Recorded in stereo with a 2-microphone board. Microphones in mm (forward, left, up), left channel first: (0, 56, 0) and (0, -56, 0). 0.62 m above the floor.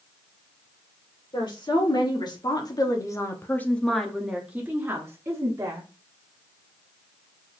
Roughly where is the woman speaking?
Left.